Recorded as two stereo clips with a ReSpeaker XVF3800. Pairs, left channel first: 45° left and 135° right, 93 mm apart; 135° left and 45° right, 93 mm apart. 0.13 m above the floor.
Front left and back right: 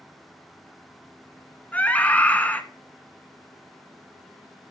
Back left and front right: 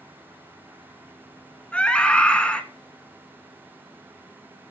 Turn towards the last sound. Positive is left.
turn(degrees=80)